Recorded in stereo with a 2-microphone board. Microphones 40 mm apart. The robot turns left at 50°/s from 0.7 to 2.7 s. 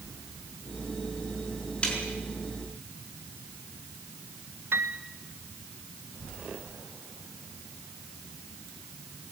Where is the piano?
70° right (ahead or behind), 1.3 m.